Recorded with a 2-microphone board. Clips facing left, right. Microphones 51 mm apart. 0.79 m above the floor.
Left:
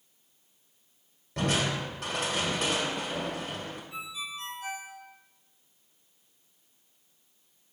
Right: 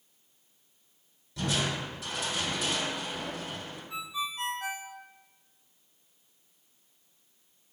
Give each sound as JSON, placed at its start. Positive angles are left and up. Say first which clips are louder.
{"t": 1.4, "sound": "crushing", "louder": "left 3 dB", "side_deg": 60, "distance_m": 1.8}
{"t": 3.9, "sound": "a ringtone", "louder": "right 3 dB", "side_deg": -80, "distance_m": 1.1}